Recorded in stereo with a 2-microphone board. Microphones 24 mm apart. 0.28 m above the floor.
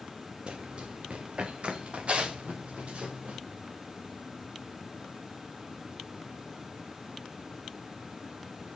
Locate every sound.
0.5 s running footsteps: 50° right (ahead or behind), 1.4 m; by 3.4 s 65° right (ahead or behind), 3.5 m